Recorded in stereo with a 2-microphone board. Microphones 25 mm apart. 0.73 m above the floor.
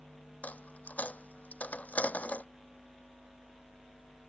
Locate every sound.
0.4 s a dropped coin: 85° left